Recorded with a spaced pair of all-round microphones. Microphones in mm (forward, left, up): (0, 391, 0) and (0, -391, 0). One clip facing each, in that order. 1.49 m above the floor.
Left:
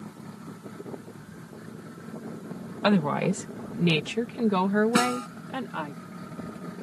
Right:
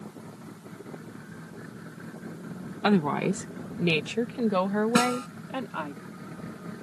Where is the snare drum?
10° right (ahead or behind).